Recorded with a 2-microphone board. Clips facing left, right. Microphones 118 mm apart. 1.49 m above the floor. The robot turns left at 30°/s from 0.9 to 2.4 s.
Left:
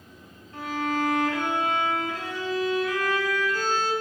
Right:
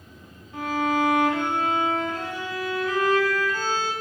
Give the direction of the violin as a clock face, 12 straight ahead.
12 o'clock.